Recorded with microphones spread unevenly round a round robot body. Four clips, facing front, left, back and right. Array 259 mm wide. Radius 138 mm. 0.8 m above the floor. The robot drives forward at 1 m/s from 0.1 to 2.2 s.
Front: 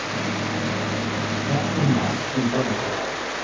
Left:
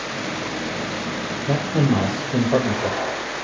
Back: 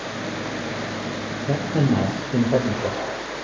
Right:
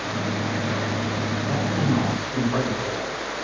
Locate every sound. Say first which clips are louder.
1.5 s a man speaking: left 5 dB, back 2 dB; 130° left, 3.5 m; by 3.0 s 135° left, 4 m